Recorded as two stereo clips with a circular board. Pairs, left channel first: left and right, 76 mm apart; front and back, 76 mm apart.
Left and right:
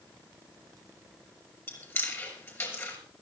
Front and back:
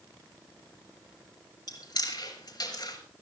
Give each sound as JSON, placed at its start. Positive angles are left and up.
{"t": 1.7, "sound": "chewing", "azimuth_deg": 30, "distance_m": 5.5}